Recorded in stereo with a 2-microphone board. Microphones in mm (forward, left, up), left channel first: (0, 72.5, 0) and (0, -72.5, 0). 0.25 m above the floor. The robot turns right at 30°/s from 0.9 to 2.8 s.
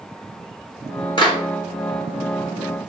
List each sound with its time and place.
1.2 s a clap: 35° left (ahead or behind), 5 m; by 1.4 s 40° left (ahead or behind), 5 m